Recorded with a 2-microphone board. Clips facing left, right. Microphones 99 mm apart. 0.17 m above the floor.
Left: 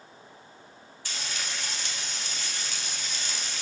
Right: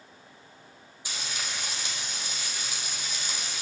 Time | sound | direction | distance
1.1 | frying | 15° right (ahead or behind) | 1.8 m